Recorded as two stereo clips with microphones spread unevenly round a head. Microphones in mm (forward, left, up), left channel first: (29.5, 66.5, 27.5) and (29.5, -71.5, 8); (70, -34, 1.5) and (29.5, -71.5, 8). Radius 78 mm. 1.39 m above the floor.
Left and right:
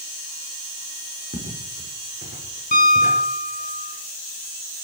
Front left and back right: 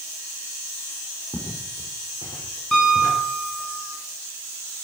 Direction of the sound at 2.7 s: 130° left.